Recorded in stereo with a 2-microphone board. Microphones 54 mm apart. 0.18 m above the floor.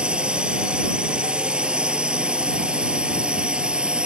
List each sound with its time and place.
0.0 s a drone: 20° right (ahead or behind)